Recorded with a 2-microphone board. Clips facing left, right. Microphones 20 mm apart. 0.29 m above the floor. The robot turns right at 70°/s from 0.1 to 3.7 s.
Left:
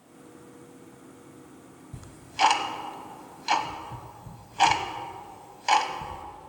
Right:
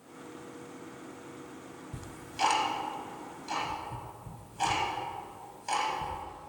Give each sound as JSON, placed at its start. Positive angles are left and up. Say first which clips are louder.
{"t": 1.9, "sound": "ticking", "louder": "left 7 dB", "side_deg": 0, "distance_m": 0.9}